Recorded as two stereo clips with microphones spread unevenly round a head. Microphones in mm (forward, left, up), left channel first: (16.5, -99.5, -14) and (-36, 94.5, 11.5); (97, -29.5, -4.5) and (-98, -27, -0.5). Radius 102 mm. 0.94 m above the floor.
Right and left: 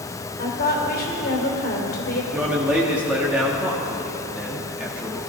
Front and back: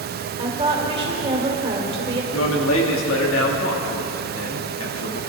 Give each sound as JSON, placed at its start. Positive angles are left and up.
{"t": 0.4, "sound": "a woman speaking", "azimuth_deg": -115, "distance_m": 3.0}
{"t": 2.3, "sound": "a man speaking", "azimuth_deg": 20, "distance_m": 2.0}